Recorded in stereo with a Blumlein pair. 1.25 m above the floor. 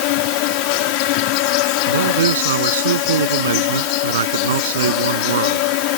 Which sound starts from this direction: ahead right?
A man speaking, at 1.9 s.